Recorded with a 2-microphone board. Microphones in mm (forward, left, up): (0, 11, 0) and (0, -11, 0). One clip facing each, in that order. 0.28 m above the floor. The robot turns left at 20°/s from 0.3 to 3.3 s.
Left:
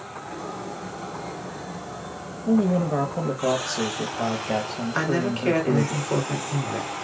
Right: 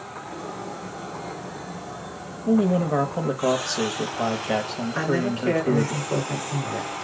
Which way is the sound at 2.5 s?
25° right (ahead or behind).